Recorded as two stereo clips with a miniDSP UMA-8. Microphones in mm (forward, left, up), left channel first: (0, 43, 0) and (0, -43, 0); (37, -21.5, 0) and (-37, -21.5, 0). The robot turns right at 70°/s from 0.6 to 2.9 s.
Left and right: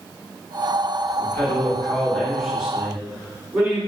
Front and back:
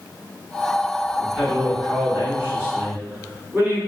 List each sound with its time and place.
1.2 s a man speaking: 95° left, 1.3 m; by 3.8 s 145° right, 1.3 m